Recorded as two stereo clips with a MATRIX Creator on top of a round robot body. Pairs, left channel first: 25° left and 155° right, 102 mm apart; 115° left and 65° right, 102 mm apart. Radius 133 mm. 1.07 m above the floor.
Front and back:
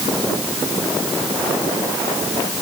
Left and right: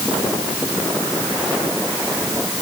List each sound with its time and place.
Only background noise.